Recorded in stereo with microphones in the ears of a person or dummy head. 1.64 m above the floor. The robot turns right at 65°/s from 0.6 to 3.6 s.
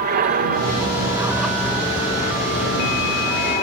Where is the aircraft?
60° right; by 3.6 s 135° left.